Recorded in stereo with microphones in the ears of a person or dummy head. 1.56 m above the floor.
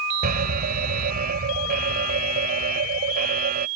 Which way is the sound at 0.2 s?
45° right (ahead or behind).